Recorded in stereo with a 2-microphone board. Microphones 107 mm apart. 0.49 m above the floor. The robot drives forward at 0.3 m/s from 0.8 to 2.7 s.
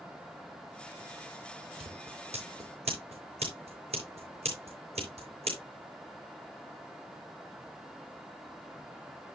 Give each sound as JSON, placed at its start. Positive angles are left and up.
{"t": 1.8, "sound": "scissors", "side_deg": -80, "distance_m": 5.5}